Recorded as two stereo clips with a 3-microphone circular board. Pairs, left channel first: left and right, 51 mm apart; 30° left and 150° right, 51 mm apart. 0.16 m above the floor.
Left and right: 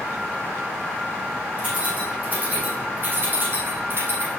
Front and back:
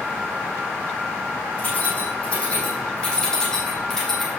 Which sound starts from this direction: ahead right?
Keys jangling, at 1.6 s.